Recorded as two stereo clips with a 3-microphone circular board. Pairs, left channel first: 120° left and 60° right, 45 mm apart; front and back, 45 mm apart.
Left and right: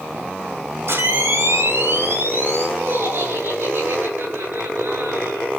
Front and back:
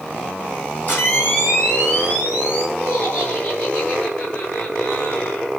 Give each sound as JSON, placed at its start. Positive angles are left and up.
{"t": 0.9, "sound": "a camera shutter", "azimuth_deg": -45, "distance_m": 9.0}
{"t": 2.8, "sound": "laughter", "azimuth_deg": -35, "distance_m": 8.0}